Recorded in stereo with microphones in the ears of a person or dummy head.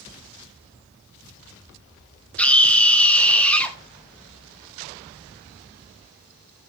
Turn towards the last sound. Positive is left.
turn(degrees=5)  # may be behind; listen again after turning